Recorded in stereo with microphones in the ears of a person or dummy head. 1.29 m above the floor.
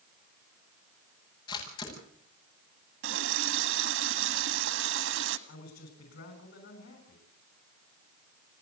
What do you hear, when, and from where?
1.5 s a camera shutter: 30° left (ahead or behind), 9 m
3.0 s a running tap: 80° right, 1.7 m
5.5 s a man speaking: 70° left (ahead or behind), 7 m